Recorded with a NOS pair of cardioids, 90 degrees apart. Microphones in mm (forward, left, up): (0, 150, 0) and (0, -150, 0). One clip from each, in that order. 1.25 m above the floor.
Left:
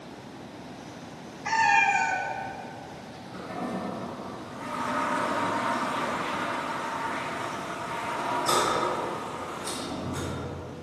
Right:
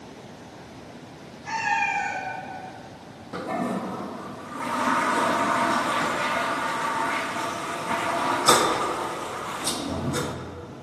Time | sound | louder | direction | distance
1.4 | a cat meowing | left 3 dB | 70° left | 1.9 m
3.3 | a toilet flushing | right 6 dB | 50° right | 0.7 m